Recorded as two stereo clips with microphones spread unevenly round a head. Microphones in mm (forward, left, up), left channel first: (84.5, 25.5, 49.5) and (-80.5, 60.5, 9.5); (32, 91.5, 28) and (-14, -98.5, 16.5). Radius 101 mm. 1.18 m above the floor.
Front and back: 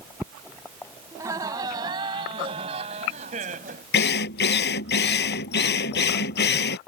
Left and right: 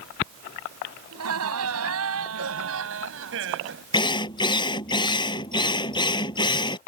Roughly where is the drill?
Ahead.